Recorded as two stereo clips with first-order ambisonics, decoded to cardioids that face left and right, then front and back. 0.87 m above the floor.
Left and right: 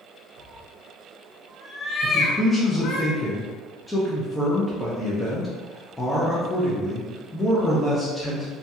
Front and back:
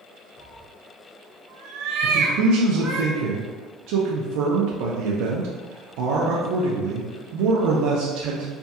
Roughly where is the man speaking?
Behind.